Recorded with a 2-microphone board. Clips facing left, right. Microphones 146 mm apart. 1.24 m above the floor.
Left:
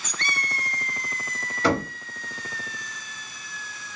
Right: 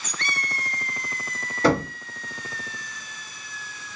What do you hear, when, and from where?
1.6 s knocking: 40° right (ahead or behind), 1.6 m